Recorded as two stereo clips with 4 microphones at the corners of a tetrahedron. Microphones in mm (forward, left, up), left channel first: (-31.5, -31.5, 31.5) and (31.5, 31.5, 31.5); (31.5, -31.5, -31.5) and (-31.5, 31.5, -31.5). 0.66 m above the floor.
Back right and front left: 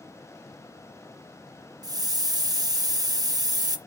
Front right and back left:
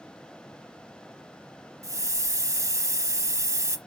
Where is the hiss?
80° left, 1.0 m.